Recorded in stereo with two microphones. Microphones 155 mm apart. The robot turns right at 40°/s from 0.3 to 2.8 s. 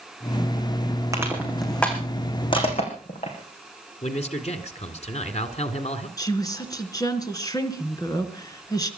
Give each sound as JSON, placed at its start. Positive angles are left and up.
{"t": 1.1, "sound": "crushing", "side_deg": -20, "distance_m": 4.0}
{"t": 4.0, "sound": "a man speaking", "side_deg": 45, "distance_m": 2.0}
{"t": 6.2, "sound": "a woman speaking", "side_deg": 25, "distance_m": 2.5}